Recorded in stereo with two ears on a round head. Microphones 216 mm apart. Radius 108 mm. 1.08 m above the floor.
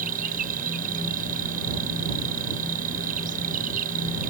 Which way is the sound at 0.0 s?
35° right (ahead or behind).